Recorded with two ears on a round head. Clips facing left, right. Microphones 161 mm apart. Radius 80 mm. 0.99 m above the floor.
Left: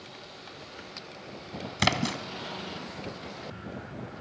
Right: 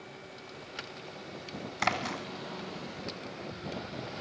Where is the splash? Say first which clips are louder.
Left 4 dB; 45° left (ahead or behind), 1.3 m.